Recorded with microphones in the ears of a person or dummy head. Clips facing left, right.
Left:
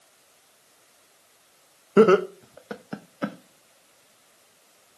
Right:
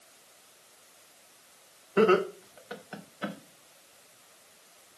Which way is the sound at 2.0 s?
60° left (ahead or behind).